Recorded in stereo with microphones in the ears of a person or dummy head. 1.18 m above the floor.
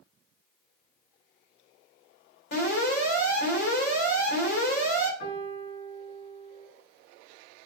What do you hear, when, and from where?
2.5 s an alarm: 65° left (ahead or behind), 3.5 m
5.2 s a piano: 60° left (ahead or behind), 4.5 m